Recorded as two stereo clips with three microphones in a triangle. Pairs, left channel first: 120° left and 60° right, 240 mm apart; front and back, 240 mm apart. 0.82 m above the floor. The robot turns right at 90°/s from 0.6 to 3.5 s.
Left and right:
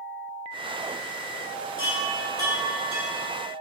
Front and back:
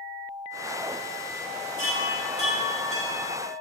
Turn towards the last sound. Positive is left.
turn(degrees=-70)